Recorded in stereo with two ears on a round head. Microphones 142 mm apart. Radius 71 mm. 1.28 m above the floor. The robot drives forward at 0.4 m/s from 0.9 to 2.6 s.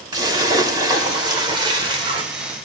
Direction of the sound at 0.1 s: 25° right (ahead or behind).